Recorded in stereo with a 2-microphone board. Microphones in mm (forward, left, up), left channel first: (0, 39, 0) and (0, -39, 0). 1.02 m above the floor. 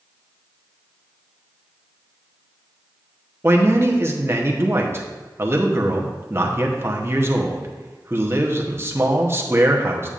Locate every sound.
3.4 s a man speaking: 35° right (ahead or behind), 0.9 m